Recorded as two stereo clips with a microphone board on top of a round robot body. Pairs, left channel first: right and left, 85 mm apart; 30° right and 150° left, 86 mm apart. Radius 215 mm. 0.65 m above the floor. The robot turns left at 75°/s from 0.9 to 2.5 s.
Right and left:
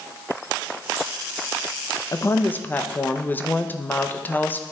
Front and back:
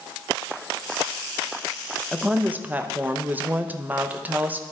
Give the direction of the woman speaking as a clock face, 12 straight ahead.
4 o'clock.